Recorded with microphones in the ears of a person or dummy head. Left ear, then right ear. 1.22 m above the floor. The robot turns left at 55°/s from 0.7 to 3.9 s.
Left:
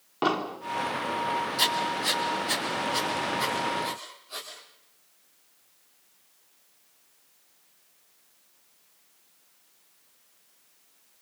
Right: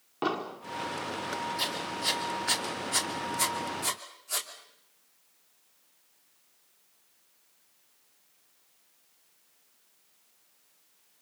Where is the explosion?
Centre (ahead or behind), 1.4 m.